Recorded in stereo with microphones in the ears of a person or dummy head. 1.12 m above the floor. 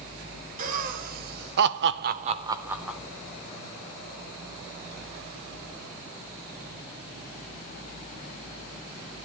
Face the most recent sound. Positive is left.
turn(degrees=0)  # may be behind; listen again after turning